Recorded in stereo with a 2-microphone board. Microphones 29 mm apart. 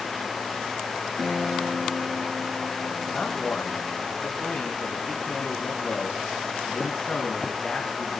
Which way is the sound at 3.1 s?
20° left (ahead or behind).